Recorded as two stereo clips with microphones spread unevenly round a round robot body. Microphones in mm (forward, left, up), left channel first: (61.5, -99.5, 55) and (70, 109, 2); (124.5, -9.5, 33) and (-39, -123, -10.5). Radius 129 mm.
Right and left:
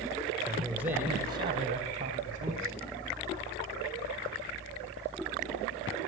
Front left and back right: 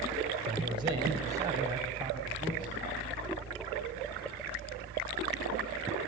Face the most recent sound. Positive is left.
turn(degrees=135)